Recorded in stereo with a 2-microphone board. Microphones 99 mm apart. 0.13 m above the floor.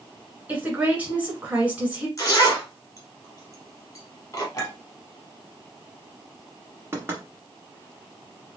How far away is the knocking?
About 1.3 m.